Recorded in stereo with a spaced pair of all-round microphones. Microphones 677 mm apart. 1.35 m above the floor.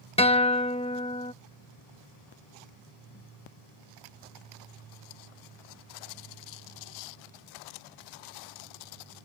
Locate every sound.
0.2 s a guitar: 10° left (ahead or behind)